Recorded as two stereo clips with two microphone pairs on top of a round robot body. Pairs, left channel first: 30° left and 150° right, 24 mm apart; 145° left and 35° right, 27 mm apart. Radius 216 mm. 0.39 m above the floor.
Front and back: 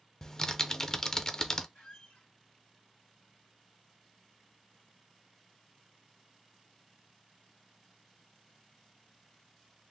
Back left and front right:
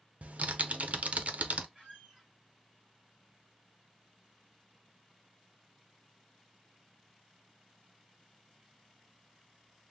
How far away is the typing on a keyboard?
About 0.7 m.